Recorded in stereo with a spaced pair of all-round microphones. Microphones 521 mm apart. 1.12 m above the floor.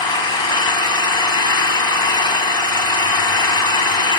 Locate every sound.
0.0 s an engine running: 60° left (ahead or behind), 2 m